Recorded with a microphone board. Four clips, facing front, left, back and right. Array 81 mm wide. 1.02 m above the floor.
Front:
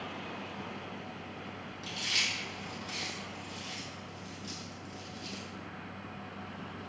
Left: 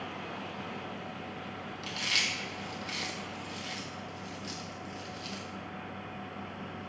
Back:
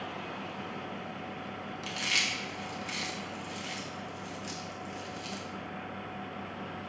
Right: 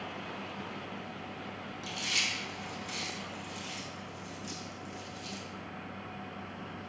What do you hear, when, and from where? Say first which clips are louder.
1.8 s chewing: left 2 dB, back 3 dB; 155° left, 0.5 m